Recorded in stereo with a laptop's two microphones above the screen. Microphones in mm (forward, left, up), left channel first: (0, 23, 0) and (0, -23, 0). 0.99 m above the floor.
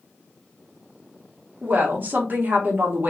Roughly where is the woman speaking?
Right.